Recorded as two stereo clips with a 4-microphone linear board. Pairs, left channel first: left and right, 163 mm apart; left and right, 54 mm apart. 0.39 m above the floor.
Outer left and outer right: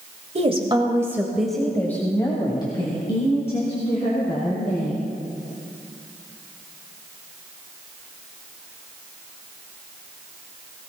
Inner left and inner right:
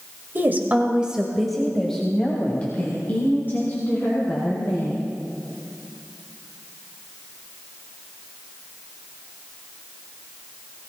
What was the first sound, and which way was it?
A woman speaking, 40° right (ahead or behind).